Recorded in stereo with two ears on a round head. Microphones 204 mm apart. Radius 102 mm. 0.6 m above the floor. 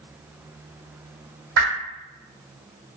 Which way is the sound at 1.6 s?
55° right (ahead or behind).